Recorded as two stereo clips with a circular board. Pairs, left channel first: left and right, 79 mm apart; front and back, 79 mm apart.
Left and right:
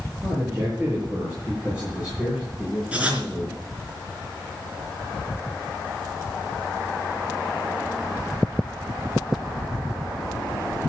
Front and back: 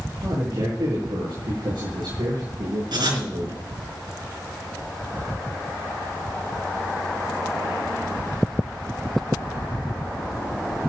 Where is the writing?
165° right, 4.5 m.